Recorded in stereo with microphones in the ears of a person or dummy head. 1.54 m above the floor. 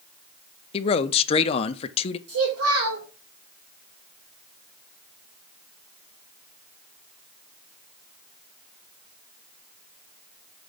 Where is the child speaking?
70° right (ahead or behind), 3 m.